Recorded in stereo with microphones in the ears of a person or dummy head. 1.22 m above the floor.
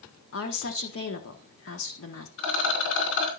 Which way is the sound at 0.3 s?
60° left (ahead or behind).